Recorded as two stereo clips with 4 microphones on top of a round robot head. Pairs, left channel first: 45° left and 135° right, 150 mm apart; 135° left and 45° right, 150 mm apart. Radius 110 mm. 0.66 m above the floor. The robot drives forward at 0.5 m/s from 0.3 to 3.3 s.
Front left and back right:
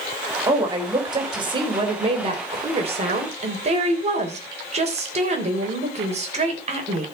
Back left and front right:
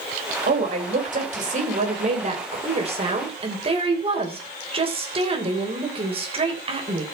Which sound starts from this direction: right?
A woman speaking, at 0.5 s.